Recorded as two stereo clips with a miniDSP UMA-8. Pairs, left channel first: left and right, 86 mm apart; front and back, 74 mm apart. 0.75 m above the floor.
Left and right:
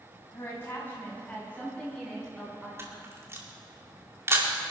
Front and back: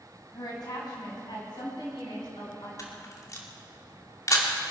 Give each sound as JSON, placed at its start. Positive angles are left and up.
{"t": 0.3, "sound": "a woman speaking", "azimuth_deg": 30, "distance_m": 5.0}
{"t": 2.8, "sound": "a camera shutter", "azimuth_deg": -35, "distance_m": 2.5}